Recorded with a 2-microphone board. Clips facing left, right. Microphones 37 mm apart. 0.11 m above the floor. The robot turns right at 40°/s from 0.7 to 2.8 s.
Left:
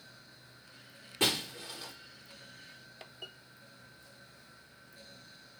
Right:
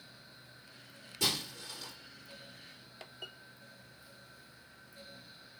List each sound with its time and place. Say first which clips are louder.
1.2 s breaking glass: left 3 dB; 45° left (ahead or behind), 5 m; by 1.9 s 15° left (ahead or behind), 5 m